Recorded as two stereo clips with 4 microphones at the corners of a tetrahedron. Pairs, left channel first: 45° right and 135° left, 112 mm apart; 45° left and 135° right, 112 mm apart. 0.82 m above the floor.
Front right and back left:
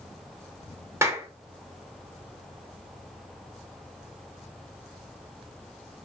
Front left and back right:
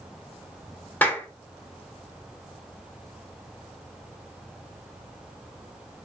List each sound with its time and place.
1.0 s a clap: 105° left, 0.8 m